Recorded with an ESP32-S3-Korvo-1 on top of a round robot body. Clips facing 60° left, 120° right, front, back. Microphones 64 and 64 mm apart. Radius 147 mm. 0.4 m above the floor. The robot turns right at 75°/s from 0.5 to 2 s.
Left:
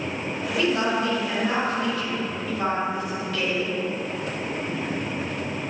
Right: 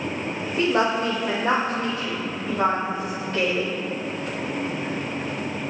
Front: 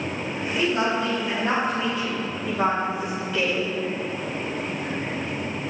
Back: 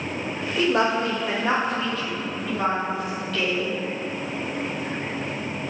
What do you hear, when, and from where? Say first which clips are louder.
0.6 s a woman speaking: right 2 dB, back 2 dB; 175° right, 2.5 m; by 3.8 s 65° right, 2.5 m